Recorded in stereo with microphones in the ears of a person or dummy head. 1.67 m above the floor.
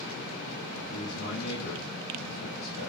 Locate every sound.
0.9 s a man speaking: 75° left (ahead or behind), 2 m